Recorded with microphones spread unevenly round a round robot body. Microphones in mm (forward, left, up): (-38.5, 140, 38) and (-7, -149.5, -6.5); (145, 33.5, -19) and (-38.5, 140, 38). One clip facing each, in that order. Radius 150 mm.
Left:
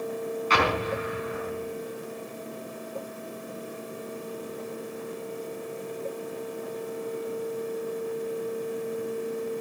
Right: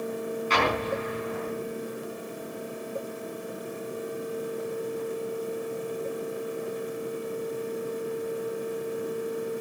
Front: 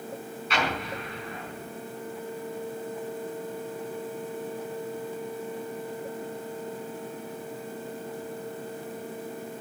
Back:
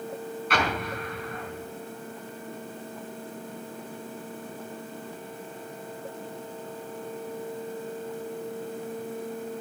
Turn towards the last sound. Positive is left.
turn(degrees=115)